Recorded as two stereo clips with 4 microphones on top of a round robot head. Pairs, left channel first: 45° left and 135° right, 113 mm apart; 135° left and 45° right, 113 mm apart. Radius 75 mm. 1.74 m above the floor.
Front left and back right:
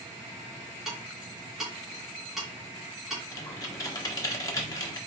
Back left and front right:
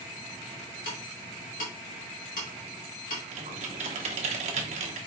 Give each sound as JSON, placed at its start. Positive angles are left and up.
{"t": 0.8, "sound": "ticking", "azimuth_deg": 135, "distance_m": 2.0}
{"t": 3.3, "sound": "typing on a keyboard", "azimuth_deg": -15, "distance_m": 0.9}